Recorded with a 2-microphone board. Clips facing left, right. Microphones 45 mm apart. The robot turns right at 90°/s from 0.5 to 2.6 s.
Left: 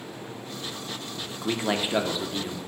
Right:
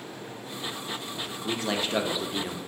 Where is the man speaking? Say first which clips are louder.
Left 3 dB; 115° left, 0.6 m; by 2.6 s 135° right, 0.6 m.